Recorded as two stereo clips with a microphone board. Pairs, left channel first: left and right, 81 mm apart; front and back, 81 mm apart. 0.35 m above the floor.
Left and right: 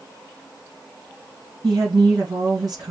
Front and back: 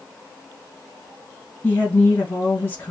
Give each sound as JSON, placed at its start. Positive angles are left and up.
{"t": 1.6, "sound": "a woman speaking", "azimuth_deg": -65, "distance_m": 3.0}